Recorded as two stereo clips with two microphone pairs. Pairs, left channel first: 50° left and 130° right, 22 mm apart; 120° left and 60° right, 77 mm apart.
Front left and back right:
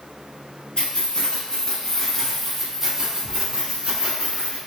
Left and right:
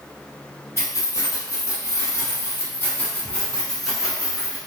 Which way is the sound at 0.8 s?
80° left.